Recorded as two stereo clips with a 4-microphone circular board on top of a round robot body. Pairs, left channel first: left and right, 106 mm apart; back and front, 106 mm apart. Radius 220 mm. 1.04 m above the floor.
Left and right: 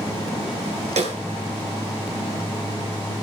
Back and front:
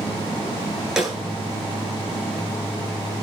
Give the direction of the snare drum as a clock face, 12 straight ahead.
3 o'clock.